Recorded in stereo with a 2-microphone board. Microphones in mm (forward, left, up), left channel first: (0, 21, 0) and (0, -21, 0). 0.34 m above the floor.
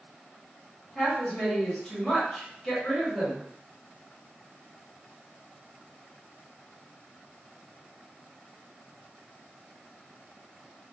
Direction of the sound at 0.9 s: 15° left (ahead or behind).